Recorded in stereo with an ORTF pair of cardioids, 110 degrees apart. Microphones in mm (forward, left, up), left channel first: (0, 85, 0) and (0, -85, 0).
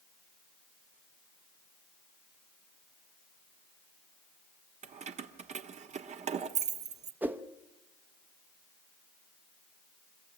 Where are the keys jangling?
45° right, 1.1 m.